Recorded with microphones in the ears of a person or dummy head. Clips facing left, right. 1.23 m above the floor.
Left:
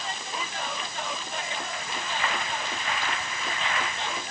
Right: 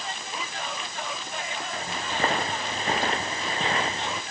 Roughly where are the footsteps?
Right.